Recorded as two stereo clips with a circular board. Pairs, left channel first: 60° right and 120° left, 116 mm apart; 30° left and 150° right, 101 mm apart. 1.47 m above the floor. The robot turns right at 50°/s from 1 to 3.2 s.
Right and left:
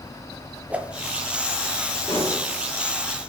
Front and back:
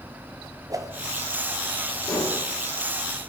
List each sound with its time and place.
0.7 s a whoosh: 170° right, 0.6 m
2.1 s dishes clattering: 25° right, 2.5 m; by 2.4 s 10° right, 2.5 m